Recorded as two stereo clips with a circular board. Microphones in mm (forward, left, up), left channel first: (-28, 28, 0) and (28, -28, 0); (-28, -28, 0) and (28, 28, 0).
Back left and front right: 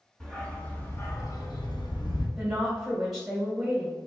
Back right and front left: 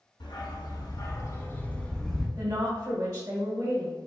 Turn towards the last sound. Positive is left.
turn(degrees=40)